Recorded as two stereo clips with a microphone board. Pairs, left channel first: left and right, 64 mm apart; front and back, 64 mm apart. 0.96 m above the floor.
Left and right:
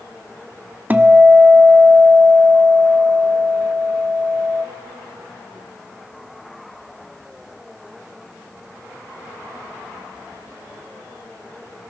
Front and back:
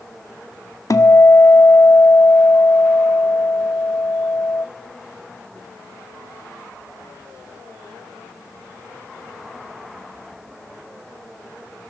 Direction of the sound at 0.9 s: 30° right.